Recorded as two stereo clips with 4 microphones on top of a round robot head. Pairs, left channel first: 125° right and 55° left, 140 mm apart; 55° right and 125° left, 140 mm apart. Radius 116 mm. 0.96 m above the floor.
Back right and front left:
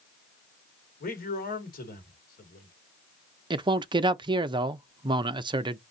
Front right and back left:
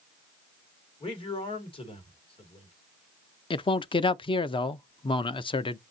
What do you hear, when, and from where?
1.0 s a man speaking: 105° right, 2 m
3.5 s a man speaking: straight ahead, 0.6 m